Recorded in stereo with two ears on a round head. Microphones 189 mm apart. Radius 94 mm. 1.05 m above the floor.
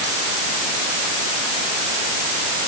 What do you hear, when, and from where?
Only background noise.